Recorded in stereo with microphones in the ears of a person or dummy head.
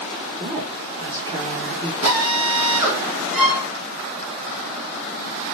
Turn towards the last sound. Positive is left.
turn(degrees=-5)  # may be behind; listen again after turning